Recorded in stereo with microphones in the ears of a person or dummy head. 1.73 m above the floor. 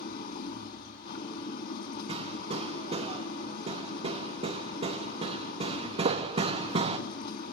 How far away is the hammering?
About 2.5 m.